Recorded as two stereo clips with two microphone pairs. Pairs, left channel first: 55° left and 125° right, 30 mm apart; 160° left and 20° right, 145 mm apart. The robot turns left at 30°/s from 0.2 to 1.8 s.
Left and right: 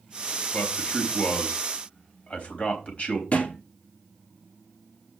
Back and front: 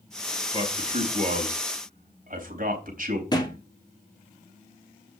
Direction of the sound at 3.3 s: 100° left.